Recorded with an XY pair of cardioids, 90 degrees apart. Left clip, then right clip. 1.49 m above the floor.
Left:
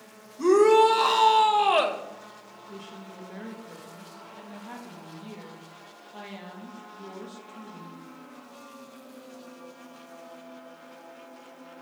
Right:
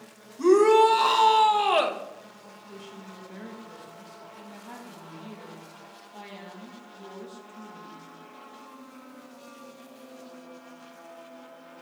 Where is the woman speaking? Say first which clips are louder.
Left 1 dB; 20° left, 2 m.